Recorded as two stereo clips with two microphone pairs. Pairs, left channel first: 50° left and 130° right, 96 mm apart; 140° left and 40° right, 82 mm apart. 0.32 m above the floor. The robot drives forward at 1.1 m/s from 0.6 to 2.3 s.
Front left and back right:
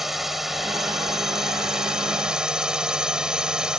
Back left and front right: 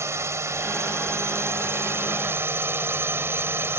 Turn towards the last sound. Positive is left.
turn(degrees=-55)